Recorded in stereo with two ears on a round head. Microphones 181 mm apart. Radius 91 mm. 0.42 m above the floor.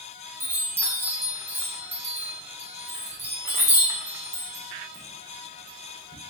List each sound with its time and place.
0.4 s a chime: 10° right (ahead or behind), 0.6 m